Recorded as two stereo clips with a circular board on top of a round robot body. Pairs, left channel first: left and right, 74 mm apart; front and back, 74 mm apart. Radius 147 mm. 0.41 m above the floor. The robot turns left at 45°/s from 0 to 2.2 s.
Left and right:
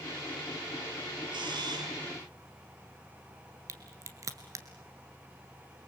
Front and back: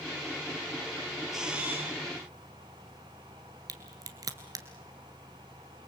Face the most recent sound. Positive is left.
turn(degrees=-140)